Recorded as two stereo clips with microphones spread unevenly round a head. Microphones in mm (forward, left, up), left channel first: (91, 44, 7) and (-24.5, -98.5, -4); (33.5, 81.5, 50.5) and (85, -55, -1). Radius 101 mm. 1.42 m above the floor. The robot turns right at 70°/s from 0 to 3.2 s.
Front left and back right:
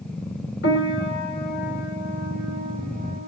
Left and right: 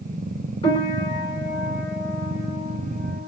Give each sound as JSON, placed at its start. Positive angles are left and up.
{"t": 0.6, "sound": "a piano", "azimuth_deg": 75, "distance_m": 2.0}